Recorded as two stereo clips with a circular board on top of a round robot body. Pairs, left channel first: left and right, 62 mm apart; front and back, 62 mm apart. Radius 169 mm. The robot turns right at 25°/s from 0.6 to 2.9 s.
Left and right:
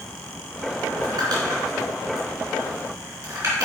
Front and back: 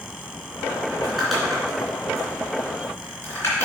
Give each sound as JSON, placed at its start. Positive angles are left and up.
{"t": 0.9, "sound": "crumpling", "azimuth_deg": -100, "distance_m": 3.0}